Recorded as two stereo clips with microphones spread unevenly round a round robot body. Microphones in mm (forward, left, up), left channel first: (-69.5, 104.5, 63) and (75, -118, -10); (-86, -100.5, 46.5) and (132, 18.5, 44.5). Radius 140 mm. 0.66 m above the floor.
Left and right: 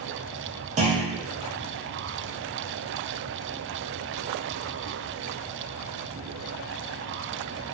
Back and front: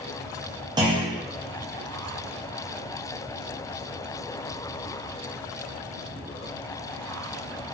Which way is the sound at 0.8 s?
35° right.